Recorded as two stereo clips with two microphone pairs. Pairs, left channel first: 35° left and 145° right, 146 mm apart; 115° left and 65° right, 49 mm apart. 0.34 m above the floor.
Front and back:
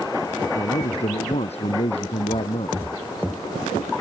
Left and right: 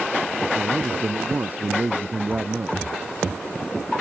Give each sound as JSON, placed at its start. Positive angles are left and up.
{"t": 0.6, "sound": "a man speaking", "azimuth_deg": -10}